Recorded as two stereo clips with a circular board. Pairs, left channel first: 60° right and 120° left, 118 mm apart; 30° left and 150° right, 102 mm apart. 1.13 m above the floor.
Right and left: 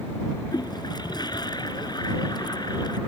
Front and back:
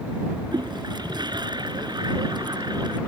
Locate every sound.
0.5 s a toilet flushing: 110° right